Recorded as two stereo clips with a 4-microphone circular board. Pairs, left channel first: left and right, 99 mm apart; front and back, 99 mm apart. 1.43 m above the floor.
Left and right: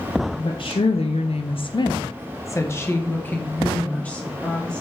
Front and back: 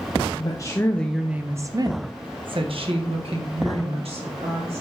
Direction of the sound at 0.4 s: 50° left.